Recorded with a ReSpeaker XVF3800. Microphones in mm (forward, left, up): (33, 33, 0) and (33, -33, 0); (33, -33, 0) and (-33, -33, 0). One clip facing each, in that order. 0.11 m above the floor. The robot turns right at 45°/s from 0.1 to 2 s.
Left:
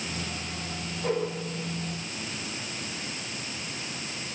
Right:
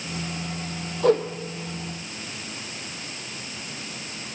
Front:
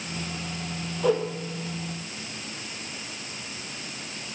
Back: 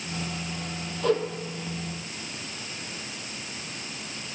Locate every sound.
1.0 s a whoosh: 85° right, 1.3 m; by 1.2 s 75° right, 1.3 m